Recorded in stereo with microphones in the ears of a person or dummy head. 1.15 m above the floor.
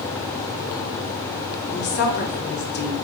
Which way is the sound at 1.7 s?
50° left (ahead or behind).